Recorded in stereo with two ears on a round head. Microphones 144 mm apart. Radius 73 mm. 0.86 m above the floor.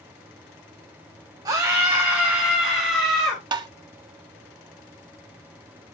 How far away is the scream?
About 1.6 m.